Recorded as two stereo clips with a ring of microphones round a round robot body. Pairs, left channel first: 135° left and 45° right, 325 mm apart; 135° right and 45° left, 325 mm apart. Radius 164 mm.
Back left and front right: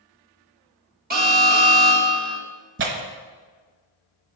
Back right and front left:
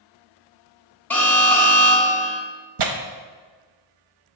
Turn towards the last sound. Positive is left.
turn(degrees=15)